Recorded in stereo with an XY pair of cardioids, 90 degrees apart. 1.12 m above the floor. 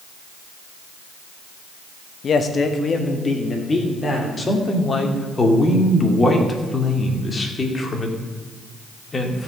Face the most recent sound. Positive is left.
turn(degrees=30)